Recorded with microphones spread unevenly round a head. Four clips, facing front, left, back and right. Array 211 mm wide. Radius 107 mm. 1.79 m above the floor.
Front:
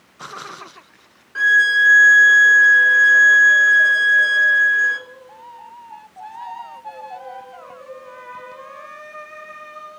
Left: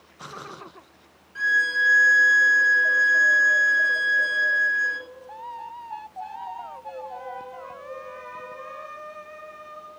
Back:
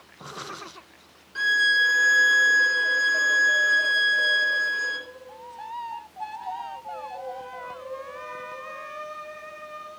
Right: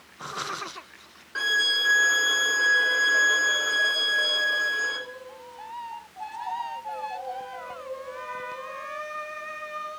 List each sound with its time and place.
1.4 s a violin: 55° right, 2.5 m